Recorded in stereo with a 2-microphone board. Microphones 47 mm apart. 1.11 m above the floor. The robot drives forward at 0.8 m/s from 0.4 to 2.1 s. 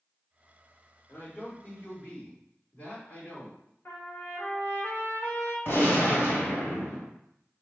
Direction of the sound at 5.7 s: 55° left (ahead or behind).